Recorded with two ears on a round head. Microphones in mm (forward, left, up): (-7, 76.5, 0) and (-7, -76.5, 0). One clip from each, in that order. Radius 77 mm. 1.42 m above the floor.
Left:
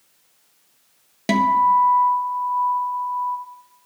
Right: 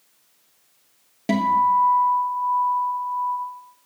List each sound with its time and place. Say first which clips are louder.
1.3 s a guitar: left 2 dB; 40° left (ahead or behind), 1.1 m